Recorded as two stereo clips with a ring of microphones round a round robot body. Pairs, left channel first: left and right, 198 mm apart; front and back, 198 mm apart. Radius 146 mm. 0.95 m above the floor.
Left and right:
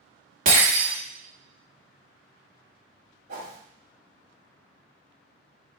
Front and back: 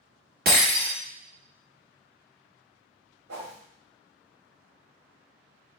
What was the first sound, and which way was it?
Breaking glass, 140° right.